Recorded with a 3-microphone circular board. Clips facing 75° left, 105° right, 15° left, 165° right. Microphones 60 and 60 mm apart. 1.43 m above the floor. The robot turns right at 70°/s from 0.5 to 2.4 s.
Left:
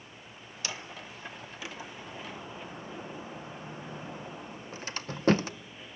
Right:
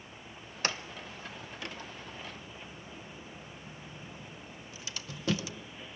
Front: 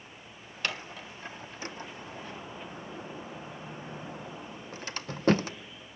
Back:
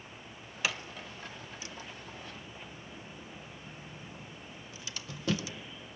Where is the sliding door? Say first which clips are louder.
Right 4 dB, even; 85° right, 0.6 m; by 5.5 s 40° left, 0.6 m.